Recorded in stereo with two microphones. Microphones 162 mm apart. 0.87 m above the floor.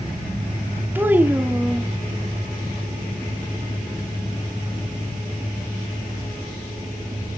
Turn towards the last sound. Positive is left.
turn(degrees=-10)  # may be behind; listen again after turning